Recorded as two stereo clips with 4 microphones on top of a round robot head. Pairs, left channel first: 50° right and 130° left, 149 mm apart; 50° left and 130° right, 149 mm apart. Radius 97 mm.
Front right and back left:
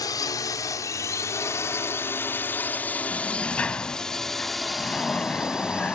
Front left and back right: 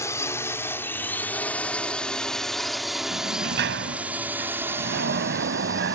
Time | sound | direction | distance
0.0 | a drone | 5° right | ?
3.1 | a sliding door | 130° right | ?